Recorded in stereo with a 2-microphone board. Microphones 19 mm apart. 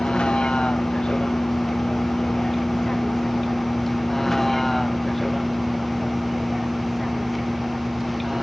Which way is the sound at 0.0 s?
55° left (ahead or behind).